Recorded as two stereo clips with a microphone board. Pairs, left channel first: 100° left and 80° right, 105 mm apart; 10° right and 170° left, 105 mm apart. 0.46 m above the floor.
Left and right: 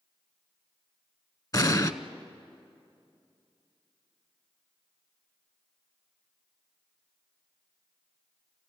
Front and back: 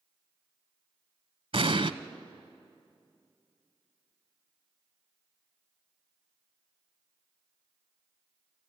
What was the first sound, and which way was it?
An explosion, 150° left.